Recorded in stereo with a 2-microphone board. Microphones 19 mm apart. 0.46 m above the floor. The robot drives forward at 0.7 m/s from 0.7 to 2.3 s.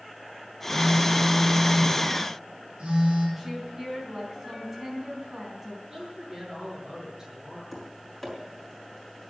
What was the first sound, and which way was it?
A phone buzzing, 75° right (ahead or behind).